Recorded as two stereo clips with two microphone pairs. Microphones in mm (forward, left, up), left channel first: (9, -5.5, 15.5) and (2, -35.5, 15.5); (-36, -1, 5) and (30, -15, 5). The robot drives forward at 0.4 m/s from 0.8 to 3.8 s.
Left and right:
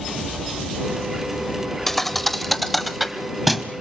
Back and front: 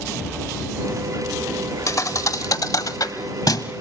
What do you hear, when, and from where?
1.9 s a thud: 155° left, 0.7 m; by 3.7 s 170° left, 1.4 m